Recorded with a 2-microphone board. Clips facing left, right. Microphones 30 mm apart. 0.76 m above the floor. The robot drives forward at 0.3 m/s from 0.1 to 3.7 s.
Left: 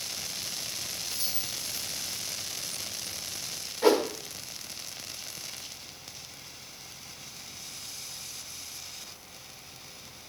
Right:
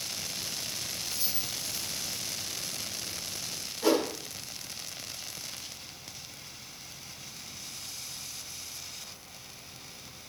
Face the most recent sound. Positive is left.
turn(degrees=45)  # may be behind; listen again after turning